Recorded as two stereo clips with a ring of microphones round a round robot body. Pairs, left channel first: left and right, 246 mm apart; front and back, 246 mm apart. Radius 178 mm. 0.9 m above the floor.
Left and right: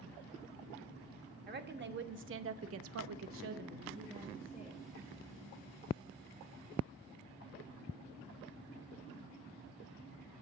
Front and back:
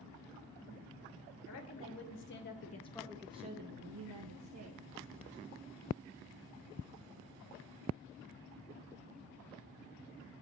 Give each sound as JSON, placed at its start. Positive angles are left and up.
{"t": 1.5, "sound": "a woman speaking", "azimuth_deg": -40, "distance_m": 1.4}